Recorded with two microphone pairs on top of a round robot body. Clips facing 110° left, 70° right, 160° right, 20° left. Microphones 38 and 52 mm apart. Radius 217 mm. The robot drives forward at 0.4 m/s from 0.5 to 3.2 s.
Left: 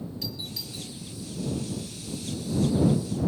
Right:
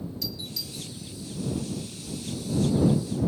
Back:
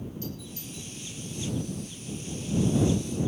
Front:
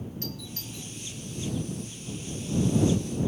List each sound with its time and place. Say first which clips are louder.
0.2 s a doorbell: right 1 dB, even; 50° left, 4.5 m; by 0.9 s 55° left, 4.5 m